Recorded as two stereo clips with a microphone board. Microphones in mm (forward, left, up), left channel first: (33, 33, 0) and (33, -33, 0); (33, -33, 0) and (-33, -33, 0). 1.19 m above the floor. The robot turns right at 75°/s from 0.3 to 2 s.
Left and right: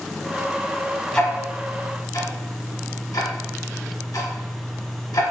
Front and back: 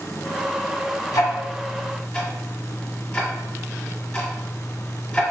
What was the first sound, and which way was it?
Ticking, 15° left.